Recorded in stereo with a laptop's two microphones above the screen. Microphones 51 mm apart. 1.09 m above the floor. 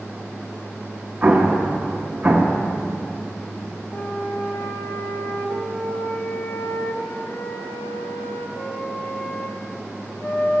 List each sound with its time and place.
1.2 s an explosion: 15° right (ahead or behind), 0.9 m
3.9 s a flute: 60° left (ahead or behind), 1.3 m